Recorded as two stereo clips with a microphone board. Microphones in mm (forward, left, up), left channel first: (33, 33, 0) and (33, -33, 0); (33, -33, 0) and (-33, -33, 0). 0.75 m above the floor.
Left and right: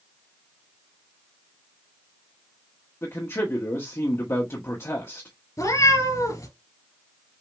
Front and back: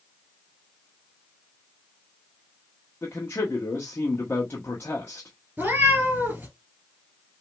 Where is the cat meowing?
120° left, 2.5 m.